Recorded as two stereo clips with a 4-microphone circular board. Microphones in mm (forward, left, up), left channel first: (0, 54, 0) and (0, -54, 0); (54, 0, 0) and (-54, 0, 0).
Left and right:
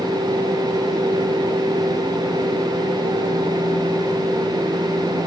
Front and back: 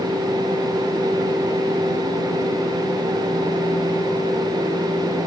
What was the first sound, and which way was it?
Only background noise.